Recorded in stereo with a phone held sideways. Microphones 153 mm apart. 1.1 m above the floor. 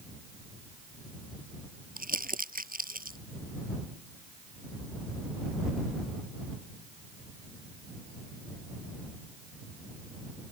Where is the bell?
I don't hear a bell.